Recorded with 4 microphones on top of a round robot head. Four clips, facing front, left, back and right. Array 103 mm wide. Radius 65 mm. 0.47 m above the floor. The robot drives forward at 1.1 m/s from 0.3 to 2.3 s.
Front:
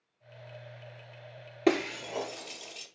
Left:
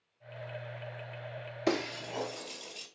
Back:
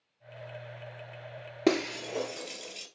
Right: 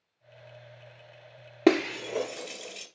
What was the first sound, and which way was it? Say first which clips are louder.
Breaking glass: right 9 dB, even; 110° right.